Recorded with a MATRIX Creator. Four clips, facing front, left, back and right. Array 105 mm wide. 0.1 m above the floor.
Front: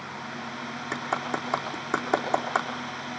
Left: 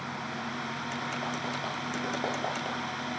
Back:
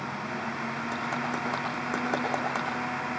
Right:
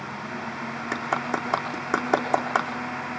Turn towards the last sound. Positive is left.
turn(degrees=-70)